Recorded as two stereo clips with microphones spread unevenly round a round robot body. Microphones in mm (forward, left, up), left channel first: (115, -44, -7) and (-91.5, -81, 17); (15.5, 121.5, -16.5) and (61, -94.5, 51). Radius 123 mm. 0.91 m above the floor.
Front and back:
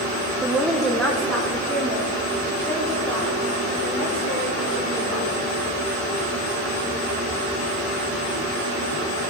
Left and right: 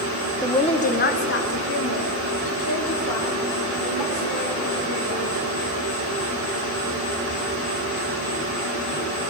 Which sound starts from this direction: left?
A woman speaking, at 0.4 s.